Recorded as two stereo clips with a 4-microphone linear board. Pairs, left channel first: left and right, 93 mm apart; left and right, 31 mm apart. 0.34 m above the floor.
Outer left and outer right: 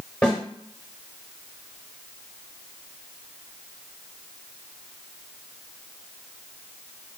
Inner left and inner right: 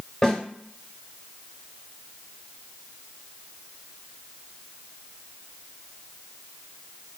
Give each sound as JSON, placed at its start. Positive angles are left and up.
{"t": 0.2, "sound": "a snare drum", "side_deg": 10, "distance_m": 1.3}